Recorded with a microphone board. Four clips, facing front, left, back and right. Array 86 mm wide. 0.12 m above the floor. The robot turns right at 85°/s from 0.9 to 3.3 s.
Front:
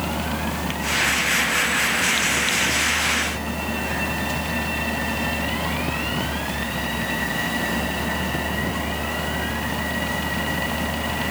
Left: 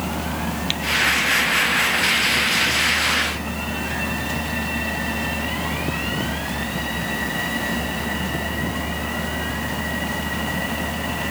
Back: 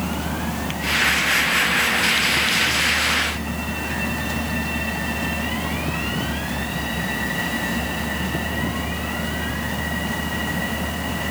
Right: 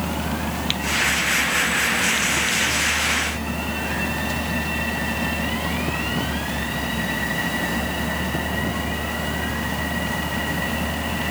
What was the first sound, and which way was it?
Only background noise.